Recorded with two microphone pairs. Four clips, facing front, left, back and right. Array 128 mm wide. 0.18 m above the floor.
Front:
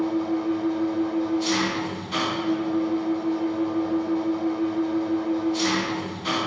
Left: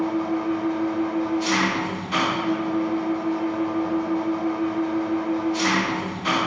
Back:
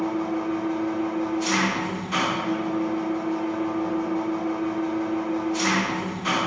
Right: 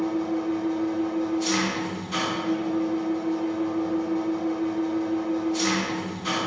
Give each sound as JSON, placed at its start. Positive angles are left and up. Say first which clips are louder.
{"t": 0.0, "sound": "an engine running", "louder": "left 2 dB, front 1 dB", "azimuth_deg": 115, "distance_m": 1.1}